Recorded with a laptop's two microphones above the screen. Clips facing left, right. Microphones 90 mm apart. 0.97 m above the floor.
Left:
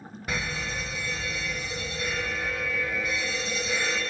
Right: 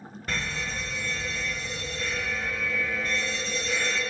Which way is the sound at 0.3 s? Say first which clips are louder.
Left 1 dB; 10° left (ahead or behind).